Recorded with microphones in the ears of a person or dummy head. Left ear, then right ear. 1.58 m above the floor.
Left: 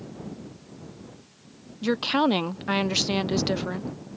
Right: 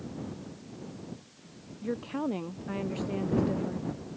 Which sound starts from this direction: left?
A woman speaking, at 1.8 s.